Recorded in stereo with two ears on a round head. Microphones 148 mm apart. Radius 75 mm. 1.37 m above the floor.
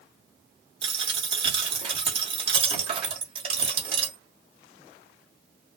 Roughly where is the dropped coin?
Right.